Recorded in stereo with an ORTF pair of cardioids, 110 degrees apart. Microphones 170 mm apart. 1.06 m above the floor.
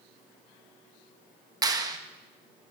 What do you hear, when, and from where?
1.6 s a clap: 20° right, 0.9 m